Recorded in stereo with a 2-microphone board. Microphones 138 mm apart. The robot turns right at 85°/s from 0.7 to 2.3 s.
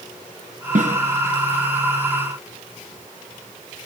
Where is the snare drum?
65° right (ahead or behind), 3 m; by 1.0 s 50° right (ahead or behind), 3 m.